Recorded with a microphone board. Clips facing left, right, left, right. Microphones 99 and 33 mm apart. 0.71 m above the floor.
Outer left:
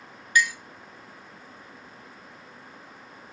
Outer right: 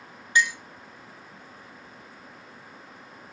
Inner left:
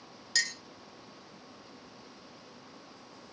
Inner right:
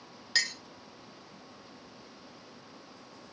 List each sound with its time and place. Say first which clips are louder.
0.3 s a clink: even, inner right 1 dB; 25° right (ahead or behind), 0.5 m